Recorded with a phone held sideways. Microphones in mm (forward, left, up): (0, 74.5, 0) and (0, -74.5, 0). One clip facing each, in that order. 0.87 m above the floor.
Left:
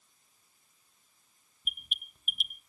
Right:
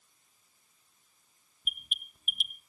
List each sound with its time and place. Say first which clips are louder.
1.6 s an alarm: even; 5° right (ahead or behind), 1.4 m